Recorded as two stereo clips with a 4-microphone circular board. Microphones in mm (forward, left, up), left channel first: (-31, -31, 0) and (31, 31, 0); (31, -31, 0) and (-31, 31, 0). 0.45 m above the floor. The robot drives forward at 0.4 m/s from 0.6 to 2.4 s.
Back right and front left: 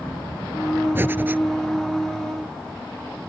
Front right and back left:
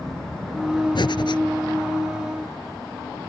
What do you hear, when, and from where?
0.9 s breathing: 20° right